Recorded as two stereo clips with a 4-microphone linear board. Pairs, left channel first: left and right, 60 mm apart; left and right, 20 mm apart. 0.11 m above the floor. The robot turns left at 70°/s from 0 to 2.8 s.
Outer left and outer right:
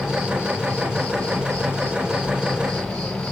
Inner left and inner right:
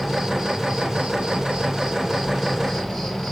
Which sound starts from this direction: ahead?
An insect, at 0.0 s.